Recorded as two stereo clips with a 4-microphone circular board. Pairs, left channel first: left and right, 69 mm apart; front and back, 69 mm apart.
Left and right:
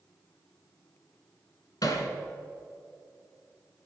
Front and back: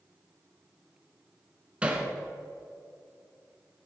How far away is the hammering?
About 1.8 m.